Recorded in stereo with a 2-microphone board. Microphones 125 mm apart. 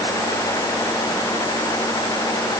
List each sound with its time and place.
Only background noise.